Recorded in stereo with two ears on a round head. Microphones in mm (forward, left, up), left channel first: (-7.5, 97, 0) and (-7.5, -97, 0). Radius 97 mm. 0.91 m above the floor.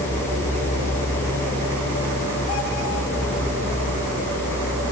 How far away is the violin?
I don't hear a violin.